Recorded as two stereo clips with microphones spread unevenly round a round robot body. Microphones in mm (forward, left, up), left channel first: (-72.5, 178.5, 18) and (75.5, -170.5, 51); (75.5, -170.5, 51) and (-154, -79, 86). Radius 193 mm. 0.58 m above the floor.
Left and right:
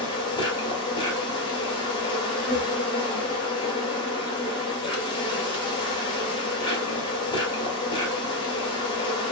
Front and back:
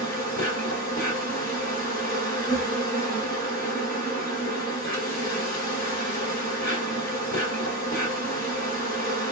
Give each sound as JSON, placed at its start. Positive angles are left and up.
{"t": 0.0, "sound": "an insect", "azimuth_deg": 35, "distance_m": 1.1}